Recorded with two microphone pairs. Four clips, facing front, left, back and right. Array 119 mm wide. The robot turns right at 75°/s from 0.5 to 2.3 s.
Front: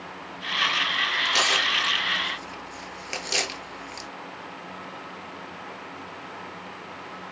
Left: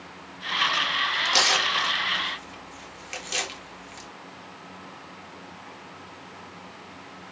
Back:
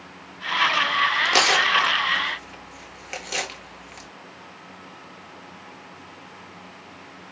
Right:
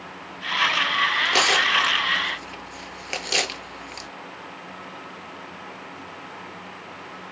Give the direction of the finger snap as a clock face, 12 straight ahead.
No finger snap in this recording.